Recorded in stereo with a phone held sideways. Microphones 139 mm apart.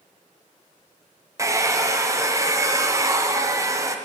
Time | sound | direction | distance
1.4 | a hair dryer | 20° right (ahead or behind) | 0.5 m